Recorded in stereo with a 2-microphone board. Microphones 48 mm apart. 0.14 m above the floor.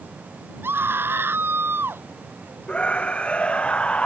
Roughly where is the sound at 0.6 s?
Right.